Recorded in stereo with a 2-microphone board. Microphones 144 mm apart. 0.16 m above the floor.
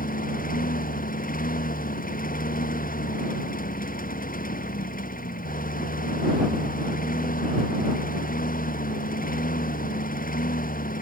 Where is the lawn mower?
75° left (ahead or behind).